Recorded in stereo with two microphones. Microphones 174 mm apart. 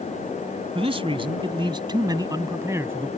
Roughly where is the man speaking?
Right.